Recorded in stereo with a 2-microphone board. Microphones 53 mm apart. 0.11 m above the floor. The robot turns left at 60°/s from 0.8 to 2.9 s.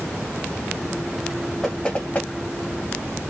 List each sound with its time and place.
1.6 s knocking: 5° left (ahead or behind), 1.8 m; by 2.3 s 35° left (ahead or behind), 1.8 m